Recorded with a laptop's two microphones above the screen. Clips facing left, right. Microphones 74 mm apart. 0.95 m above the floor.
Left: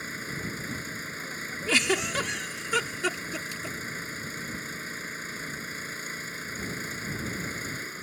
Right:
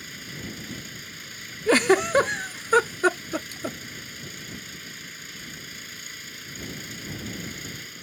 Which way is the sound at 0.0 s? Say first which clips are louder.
Left 3 dB; 35° left (ahead or behind).